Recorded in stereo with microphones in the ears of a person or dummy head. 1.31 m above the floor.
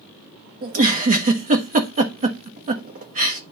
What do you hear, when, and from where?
0.6 s a giggle: 35° right (ahead or behind), 1.1 m